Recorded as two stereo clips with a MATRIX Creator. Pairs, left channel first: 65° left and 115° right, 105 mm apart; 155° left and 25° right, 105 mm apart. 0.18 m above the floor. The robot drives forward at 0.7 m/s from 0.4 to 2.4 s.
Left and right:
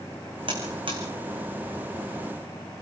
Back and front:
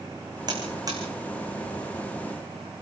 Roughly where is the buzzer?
Right.